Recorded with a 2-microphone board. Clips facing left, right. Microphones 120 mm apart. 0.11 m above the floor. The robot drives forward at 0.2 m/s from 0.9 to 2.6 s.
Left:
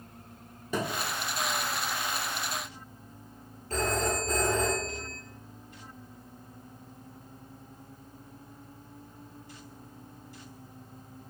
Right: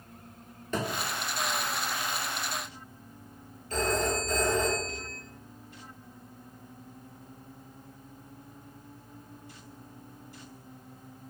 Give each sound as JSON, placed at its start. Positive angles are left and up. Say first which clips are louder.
{"t": 0.7, "sound": "a thud", "louder": "even", "side_deg": 10, "distance_m": 1.0}
{"t": 3.7, "sound": "a phone ringing", "louder": "right 1 dB", "side_deg": 50, "distance_m": 1.2}